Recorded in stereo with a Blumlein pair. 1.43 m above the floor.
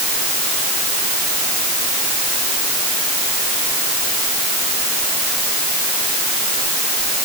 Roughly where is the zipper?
No zipper in this recording.